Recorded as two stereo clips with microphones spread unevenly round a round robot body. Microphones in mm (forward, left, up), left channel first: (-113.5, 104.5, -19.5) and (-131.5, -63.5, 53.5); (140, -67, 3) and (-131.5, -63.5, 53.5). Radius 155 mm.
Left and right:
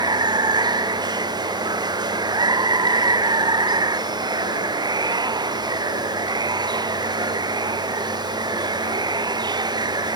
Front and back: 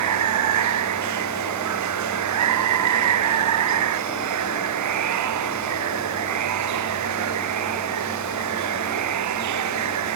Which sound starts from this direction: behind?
Running water, at 0.0 s.